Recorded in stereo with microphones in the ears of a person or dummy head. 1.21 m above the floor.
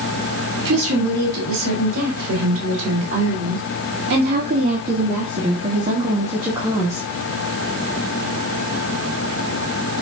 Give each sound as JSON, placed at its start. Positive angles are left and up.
{"t": 0.7, "sound": "a woman speaking", "side_deg": -85, "distance_m": 3.5}